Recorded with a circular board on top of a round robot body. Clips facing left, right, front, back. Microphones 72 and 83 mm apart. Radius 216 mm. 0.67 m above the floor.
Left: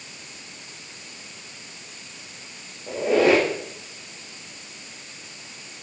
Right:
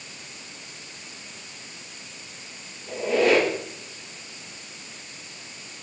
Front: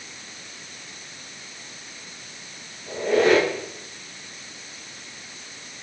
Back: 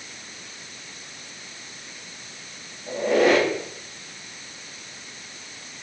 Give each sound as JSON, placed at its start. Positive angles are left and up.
{"t": 2.9, "sound": "a squeak", "azimuth_deg": 100, "distance_m": 2.5}